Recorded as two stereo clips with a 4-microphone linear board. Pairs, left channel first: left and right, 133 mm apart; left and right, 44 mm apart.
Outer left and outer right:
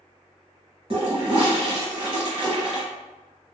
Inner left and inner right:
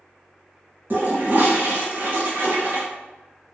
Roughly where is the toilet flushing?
Right.